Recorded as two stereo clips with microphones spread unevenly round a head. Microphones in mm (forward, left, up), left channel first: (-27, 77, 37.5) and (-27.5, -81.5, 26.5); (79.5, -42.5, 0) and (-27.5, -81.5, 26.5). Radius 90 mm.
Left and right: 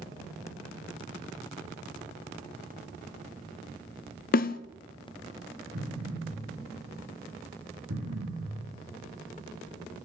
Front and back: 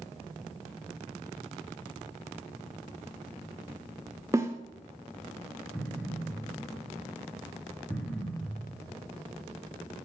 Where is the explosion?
60° right, 7.5 m.